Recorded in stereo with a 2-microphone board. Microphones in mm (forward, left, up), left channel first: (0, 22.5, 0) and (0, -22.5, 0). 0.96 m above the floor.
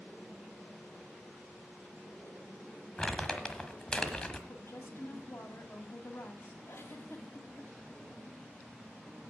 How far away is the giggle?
About 1.4 m.